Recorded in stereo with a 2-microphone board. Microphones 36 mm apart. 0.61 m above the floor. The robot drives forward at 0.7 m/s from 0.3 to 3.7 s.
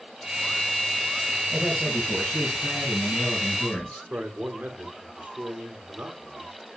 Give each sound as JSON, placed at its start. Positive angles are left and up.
{"t": 1.5, "sound": "a man speaking", "side_deg": 30, "distance_m": 6.5}
{"t": 4.1, "sound": "a man speaking", "side_deg": -50, "distance_m": 2.5}